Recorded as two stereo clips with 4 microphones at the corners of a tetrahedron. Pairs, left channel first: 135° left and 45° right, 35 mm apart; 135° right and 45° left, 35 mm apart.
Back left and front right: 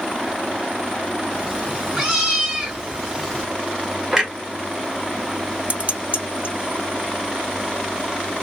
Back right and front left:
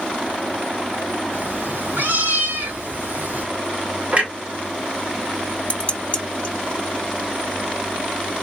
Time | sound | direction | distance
1.3 | a cat meowing | 20° left | 3 m
4.1 | a clunk | 25° left | 1.8 m
5.7 | dishes clattering | 85° right | 1.4 m